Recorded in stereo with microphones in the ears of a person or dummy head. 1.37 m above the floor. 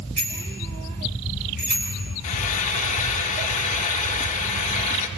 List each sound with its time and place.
0.2 s a bicycle bell: 70° right (ahead or behind), 6.5 m
2.2 s frying: 40° left (ahead or behind), 1.4 m